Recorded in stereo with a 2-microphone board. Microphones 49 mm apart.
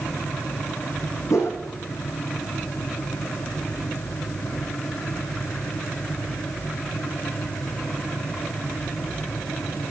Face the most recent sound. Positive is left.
turn(degrees=80)